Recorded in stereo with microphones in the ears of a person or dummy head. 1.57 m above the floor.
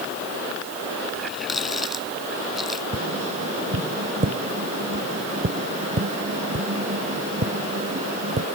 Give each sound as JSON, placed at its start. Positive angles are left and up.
{"t": 1.1, "sound": "a running tap", "side_deg": 5}
{"t": 2.9, "sound": "tapping", "side_deg": -35}